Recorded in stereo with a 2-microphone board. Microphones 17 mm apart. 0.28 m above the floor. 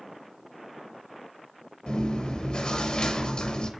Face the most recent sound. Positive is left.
turn(degrees=75)  # may be behind; listen again after turning